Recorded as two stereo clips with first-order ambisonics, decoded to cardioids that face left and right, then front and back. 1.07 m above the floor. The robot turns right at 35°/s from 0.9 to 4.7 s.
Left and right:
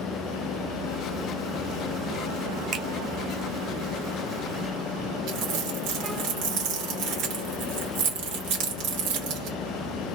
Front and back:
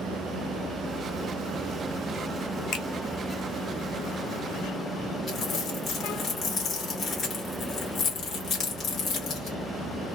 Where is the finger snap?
45° right, 1.0 m; by 2.9 s 40° right, 1.0 m.